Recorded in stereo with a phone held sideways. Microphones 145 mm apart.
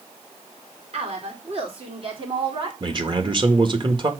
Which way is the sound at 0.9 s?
50° right (ahead or behind).